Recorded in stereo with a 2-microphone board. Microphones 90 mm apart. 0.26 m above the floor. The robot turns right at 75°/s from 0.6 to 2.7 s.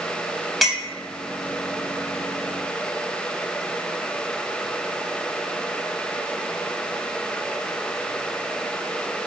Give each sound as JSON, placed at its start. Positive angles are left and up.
{"t": 0.6, "sound": "a clink", "side_deg": 0, "distance_m": 0.7}